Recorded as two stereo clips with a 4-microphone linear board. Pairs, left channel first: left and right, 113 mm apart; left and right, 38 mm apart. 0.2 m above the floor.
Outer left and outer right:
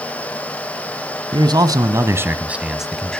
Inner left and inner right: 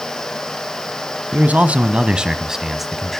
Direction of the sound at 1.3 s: 40° right (ahead or behind).